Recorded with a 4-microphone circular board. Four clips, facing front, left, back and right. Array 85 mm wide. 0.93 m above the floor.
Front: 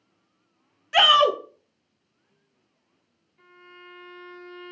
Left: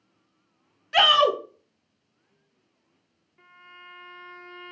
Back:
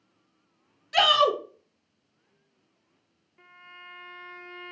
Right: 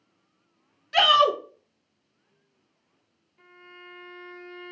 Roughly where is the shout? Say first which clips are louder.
Even, front 3 dB; ahead left.